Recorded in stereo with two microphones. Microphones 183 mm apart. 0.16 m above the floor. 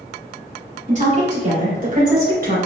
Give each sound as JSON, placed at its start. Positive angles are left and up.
{"t": 0.9, "sound": "a woman speaking", "side_deg": -40, "distance_m": 1.8}